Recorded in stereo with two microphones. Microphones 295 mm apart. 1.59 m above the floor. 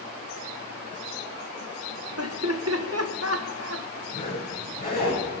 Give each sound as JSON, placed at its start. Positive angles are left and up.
{"t": 2.2, "sound": "laughter", "side_deg": -55, "distance_m": 1.6}
{"t": 4.1, "sound": "a zipper", "side_deg": 30, "distance_m": 8.0}